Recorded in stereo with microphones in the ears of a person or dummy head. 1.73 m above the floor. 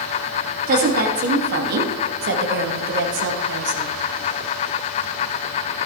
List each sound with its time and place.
0.7 s a woman speaking: 45° right (ahead or behind), 2.5 m; by 4.0 s 70° right (ahead or behind), 1.6 m